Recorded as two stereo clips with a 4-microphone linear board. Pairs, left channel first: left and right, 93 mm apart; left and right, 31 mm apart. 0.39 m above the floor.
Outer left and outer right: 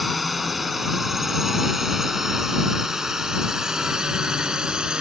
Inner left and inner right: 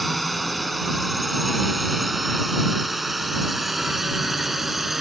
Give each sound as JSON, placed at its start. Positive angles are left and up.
{"t": 0.0, "sound": "a drone", "side_deg": 0}